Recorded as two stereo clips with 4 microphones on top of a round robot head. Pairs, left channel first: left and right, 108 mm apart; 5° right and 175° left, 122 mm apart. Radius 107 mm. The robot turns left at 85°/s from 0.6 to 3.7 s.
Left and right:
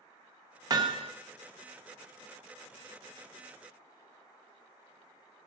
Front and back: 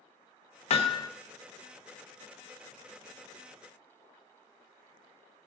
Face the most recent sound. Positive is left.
turn(degrees=70)